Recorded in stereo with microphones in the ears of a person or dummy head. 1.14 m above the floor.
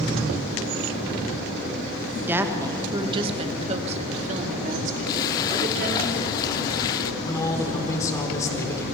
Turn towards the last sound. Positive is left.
turn(degrees=20)  # may be behind; listen again after turning